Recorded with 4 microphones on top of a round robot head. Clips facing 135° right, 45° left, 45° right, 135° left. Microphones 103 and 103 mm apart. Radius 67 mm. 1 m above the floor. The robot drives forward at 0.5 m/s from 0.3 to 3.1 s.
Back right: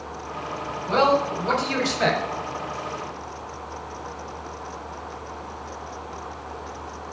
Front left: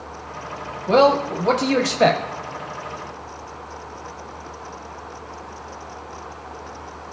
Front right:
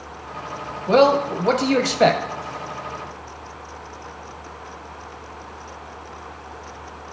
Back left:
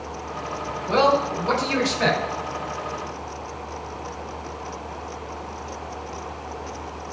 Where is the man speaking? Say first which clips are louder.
Front left 5 dB, front right 4 dB; straight ahead, 1.6 m.